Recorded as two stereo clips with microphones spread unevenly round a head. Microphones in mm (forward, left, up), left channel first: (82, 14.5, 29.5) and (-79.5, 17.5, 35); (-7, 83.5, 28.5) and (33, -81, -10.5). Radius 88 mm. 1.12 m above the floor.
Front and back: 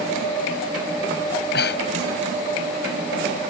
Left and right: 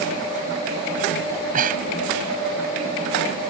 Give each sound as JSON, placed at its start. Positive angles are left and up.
{"t": 1.3, "sound": "breathing", "azimuth_deg": -35}